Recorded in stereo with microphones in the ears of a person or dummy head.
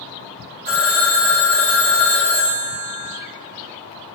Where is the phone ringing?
45° right (ahead or behind), 1.4 m.